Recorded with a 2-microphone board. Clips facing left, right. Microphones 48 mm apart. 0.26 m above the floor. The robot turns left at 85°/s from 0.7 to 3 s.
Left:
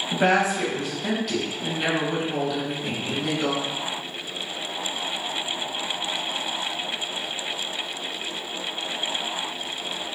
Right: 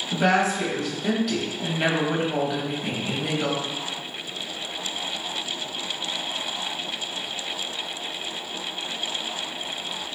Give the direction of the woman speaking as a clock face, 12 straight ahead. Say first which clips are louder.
Even; 10 o'clock.